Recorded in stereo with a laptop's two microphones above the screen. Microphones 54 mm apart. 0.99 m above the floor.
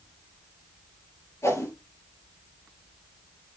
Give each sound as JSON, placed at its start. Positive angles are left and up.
{"t": 1.4, "sound": "a whoosh", "side_deg": 60, "distance_m": 4.0}